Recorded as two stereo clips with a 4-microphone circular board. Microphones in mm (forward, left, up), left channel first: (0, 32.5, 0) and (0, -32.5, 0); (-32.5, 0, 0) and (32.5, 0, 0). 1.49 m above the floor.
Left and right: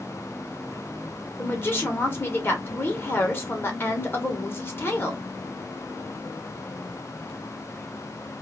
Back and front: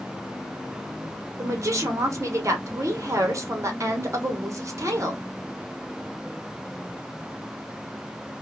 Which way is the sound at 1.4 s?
35° left.